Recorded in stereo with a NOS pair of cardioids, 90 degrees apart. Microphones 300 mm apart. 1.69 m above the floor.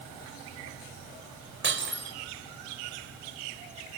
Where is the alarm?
No alarm in this recording.